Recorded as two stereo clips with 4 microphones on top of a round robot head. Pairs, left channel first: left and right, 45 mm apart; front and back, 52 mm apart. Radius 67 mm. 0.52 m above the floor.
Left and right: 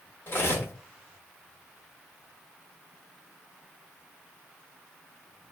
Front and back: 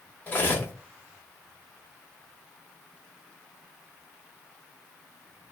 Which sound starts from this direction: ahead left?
Cutlery clinking, at 0.3 s.